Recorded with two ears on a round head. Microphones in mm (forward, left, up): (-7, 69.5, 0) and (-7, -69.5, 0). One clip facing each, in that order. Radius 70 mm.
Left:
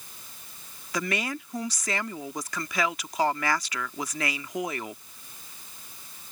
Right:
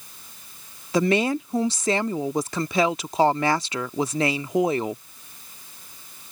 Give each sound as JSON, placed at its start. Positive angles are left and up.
{"t": 0.9, "sound": "a woman speaking", "side_deg": -25}